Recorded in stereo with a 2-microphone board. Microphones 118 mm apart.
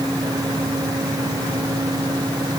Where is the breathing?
I don't hear breathing.